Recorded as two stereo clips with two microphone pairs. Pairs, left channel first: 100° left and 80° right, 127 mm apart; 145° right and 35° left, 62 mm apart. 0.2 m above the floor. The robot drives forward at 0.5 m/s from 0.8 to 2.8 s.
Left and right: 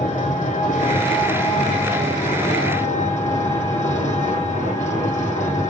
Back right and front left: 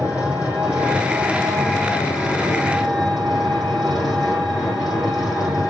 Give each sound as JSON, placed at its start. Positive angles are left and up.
{"t": 0.0, "sound": "an engine running", "azimuth_deg": 100, "distance_m": 5.5}